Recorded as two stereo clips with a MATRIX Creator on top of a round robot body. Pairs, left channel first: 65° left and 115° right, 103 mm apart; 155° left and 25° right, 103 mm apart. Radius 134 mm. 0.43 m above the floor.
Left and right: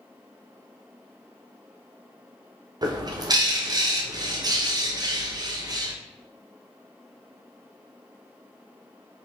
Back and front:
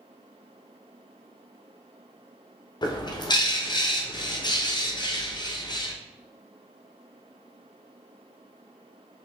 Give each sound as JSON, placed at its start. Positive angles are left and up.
{"t": 2.8, "sound": "a bird", "azimuth_deg": -160, "distance_m": 0.9}